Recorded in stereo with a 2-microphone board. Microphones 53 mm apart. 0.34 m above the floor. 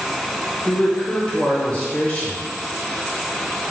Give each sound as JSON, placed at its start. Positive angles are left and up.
{"t": 0.7, "sound": "a man speaking", "side_deg": 25, "distance_m": 1.4}